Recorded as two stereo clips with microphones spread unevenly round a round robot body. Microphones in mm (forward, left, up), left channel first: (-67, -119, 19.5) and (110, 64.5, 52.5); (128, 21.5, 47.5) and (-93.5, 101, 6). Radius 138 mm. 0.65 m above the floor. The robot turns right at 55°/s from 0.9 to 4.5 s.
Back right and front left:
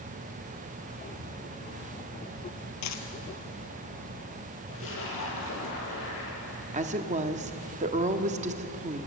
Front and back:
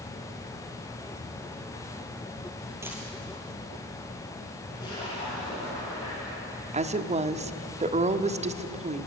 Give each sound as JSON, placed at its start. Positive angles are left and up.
{"t": 2.8, "sound": "a dropped coin", "azimuth_deg": -115, "distance_m": 2.0}
{"t": 4.7, "sound": "a splash", "azimuth_deg": -95, "distance_m": 7.5}
{"t": 6.7, "sound": "a woman speaking", "azimuth_deg": 110, "distance_m": 1.3}